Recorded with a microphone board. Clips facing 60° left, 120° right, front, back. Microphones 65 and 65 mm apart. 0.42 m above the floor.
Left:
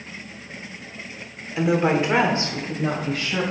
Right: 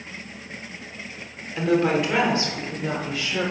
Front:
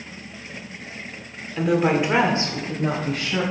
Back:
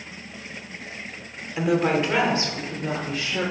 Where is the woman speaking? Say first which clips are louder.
Left 1 dB, front 2 dB; 125° left, 1.1 m; by 3.4 s 20° left, 2.5 m.